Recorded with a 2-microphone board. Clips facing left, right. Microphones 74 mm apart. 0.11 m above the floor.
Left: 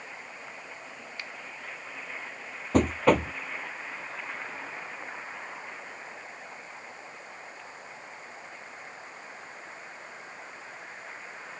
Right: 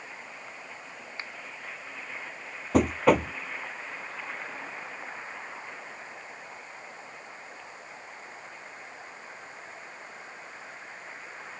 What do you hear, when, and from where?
1.2 s a finger snap: 30° right (ahead or behind)
2.7 s knocking: 5° right (ahead or behind)